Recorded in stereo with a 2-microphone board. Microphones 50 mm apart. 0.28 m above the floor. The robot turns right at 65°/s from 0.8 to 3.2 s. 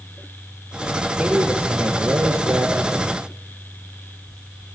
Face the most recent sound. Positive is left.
turn(degrees=-20)